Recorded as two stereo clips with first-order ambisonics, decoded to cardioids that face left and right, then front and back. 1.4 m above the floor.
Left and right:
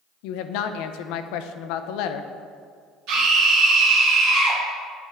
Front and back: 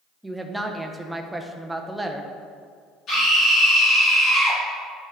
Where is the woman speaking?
95° left, 0.6 m.